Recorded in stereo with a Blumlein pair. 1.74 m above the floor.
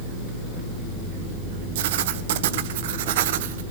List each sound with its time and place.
1.8 s writing: 55° right, 1.4 m